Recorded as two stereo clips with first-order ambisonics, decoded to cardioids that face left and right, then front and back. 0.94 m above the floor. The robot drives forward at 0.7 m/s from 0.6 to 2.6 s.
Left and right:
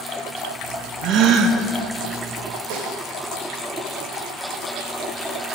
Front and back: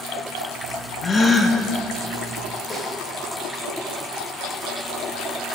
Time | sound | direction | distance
1.0 | a gasp | 60° right | 1.0 m
2.7 | a snare drum | 75° right | 2.5 m